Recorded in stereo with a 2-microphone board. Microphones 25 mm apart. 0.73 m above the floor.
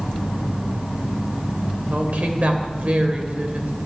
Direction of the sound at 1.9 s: 75° right (ahead or behind).